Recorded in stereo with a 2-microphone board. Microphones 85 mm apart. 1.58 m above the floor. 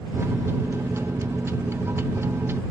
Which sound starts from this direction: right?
A microwave, at 0.1 s.